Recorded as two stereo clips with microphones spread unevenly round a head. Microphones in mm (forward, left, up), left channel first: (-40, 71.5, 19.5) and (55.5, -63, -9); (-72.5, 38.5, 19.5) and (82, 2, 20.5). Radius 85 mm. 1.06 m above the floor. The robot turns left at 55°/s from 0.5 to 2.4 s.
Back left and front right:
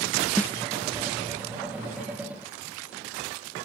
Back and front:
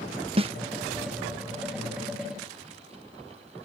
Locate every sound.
0.4 s a snare drum: 40° left